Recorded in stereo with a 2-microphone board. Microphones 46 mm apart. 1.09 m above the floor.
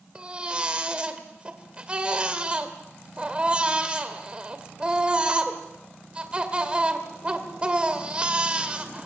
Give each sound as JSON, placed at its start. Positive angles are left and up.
{"t": 0.1, "sound": "a baby crying", "side_deg": -20, "distance_m": 2.0}